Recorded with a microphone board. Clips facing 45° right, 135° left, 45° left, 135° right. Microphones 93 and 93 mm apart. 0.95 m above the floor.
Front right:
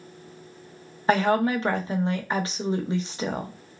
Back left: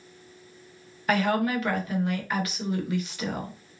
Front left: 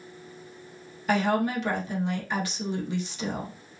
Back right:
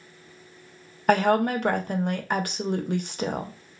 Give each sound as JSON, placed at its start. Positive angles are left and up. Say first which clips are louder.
{"t": 1.1, "sound": "a woman speaking", "louder": "front right 3 dB, back right 4 dB", "azimuth_deg": -105, "distance_m": 0.5}